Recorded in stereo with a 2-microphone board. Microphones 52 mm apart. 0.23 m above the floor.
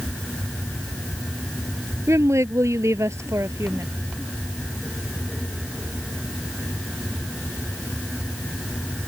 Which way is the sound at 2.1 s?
70° right (ahead or behind).